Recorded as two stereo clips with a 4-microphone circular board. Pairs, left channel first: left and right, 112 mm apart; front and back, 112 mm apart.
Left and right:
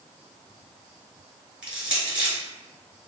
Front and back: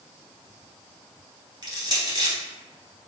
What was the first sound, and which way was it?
Crushing, 165° right.